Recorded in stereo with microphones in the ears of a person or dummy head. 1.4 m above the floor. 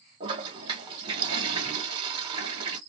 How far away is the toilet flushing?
About 1.4 m.